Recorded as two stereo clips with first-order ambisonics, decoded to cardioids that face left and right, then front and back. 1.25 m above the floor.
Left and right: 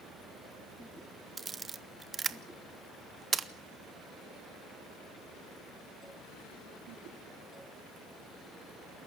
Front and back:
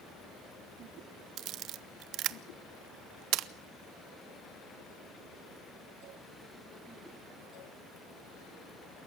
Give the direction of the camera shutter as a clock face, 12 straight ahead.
5 o'clock.